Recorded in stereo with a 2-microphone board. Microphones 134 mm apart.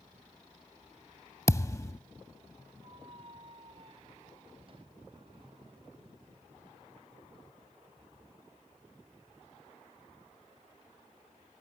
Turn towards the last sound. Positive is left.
turn(degrees=-40)  # may be behind; listen again after turning